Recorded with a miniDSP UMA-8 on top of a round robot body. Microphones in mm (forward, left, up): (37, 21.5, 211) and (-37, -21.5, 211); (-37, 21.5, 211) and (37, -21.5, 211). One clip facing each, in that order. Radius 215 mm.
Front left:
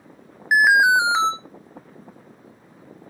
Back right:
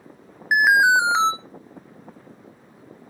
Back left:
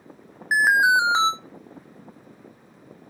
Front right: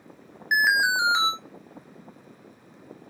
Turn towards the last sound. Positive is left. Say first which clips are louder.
# front left 1 dB, back left 4 dB
turn(degrees=120)